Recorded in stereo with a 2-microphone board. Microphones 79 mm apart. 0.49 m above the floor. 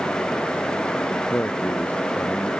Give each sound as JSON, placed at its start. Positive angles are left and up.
{"t": 1.1, "sound": "a man speaking", "side_deg": 20}